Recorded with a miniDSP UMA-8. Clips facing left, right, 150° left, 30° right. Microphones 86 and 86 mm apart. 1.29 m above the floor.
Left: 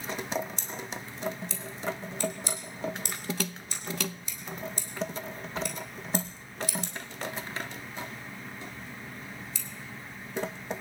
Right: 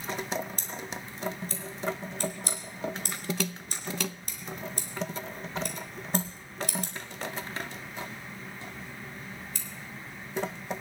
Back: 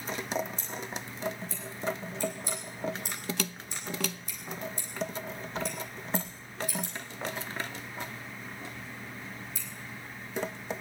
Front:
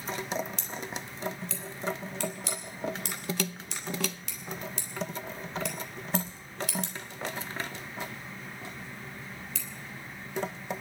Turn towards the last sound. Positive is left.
turn(degrees=-45)